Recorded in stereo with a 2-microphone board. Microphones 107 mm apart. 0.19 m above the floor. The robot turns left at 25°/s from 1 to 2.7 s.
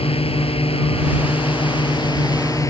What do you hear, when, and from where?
0.0 s a drone: 75° left; by 2.7 s 30° left